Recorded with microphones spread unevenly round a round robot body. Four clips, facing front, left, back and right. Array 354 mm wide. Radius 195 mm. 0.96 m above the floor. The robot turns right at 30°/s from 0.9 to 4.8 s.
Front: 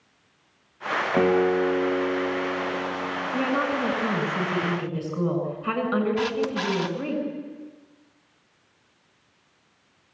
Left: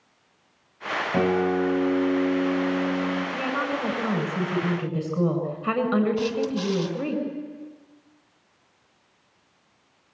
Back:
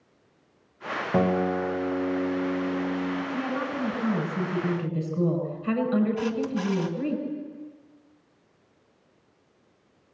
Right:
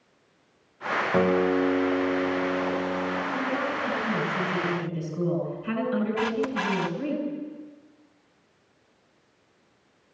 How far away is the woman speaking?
About 9 m.